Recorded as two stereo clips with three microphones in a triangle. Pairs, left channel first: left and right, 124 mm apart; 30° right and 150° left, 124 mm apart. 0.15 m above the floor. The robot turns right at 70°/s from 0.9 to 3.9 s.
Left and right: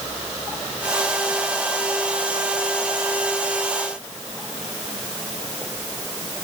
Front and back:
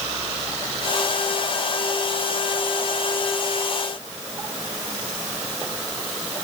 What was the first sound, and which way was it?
Only background noise.